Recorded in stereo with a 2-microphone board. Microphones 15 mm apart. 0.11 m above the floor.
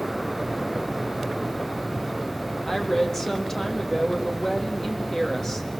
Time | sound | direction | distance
2.6 | a woman speaking | 20° left (ahead or behind) | 3.5 m